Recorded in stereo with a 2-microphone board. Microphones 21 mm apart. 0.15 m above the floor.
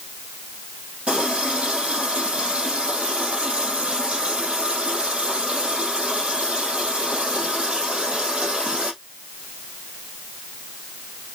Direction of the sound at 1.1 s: 80° right.